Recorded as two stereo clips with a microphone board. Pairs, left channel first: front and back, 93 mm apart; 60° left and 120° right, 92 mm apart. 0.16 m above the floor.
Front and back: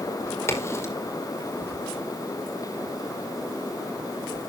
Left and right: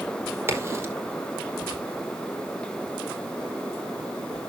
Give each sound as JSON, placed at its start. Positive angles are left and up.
{"t": 0.5, "sound": "a crack", "azimuth_deg": -60, "distance_m": 5.0}